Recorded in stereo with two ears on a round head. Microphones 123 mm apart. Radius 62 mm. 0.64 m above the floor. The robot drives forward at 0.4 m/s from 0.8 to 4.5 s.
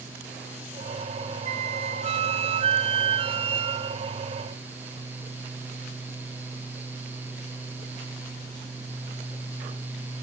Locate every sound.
1.4 s a flute: 55° right (ahead or behind); by 4.2 s 35° right (ahead or behind)